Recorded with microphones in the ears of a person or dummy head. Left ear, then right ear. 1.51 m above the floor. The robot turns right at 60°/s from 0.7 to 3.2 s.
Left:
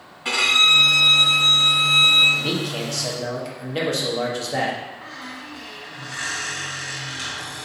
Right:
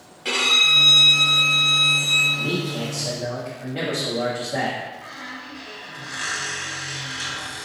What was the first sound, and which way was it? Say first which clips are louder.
A violin: left 1 dB; 170° right.